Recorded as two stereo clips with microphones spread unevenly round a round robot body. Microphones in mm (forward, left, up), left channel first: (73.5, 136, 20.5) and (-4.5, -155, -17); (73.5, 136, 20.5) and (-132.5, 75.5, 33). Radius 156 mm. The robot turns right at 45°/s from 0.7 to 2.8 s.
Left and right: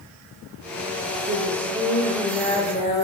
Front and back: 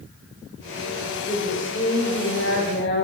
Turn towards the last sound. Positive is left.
turn(degrees=10)